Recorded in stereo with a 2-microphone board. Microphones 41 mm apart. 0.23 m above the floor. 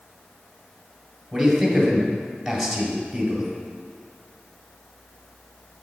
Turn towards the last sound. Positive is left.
turn(degrees=0)  # may be behind; listen again after turning